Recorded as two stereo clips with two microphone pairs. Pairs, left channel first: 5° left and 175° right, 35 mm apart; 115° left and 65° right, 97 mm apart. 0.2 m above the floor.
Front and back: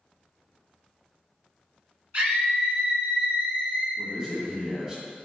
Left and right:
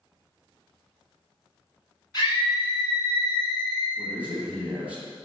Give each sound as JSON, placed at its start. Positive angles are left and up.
{"t": 2.1, "sound": "a scream", "azimuth_deg": 140, "distance_m": 1.9}
{"t": 4.0, "sound": "a man speaking", "azimuth_deg": -130, "distance_m": 1.8}